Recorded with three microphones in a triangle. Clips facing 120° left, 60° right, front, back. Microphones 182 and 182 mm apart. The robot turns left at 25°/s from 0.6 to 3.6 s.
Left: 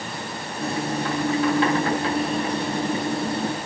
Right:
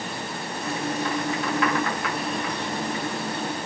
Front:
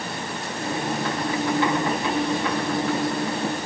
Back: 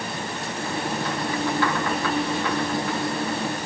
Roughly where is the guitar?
No guitar in this recording.